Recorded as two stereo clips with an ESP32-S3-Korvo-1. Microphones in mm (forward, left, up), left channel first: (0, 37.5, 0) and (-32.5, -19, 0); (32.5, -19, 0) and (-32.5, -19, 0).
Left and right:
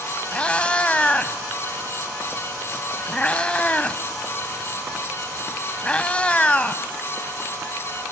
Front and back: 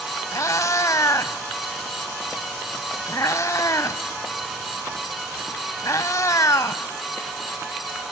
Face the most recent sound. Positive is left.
turn(degrees=-10)